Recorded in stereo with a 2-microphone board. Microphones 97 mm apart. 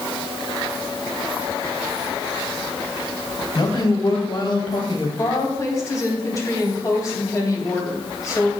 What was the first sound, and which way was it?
A man speaking, 45° left (ahead or behind).